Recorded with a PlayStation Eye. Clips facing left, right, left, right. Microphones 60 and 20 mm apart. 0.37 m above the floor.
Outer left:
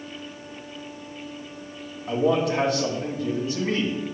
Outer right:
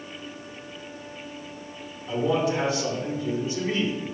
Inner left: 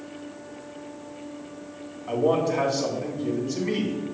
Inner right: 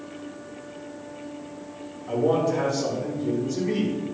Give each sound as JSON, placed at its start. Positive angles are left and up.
{"t": 2.1, "sound": "a man speaking", "side_deg": 70, "distance_m": 3.0}